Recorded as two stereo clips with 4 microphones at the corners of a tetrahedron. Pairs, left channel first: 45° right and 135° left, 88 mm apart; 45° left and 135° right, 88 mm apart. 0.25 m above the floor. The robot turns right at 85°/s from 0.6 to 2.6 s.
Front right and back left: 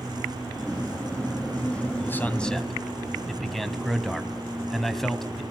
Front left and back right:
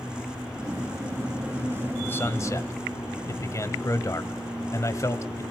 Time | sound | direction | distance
2.0 | a man speaking | 5° right | 1.5 m